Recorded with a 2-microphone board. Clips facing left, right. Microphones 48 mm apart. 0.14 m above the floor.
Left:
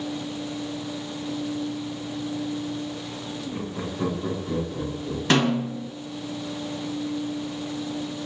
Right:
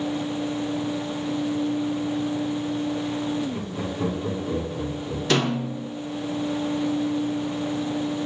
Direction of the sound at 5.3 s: 40° left (ahead or behind).